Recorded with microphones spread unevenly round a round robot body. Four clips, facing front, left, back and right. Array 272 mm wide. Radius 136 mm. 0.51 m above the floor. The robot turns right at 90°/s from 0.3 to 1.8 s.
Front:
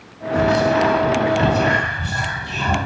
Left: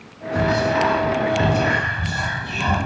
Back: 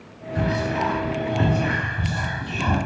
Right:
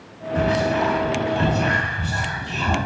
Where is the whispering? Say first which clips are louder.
Left 1 dB, front 8 dB; 55° left, 1.0 m; by 2.8 s 170° right, 1.0 m.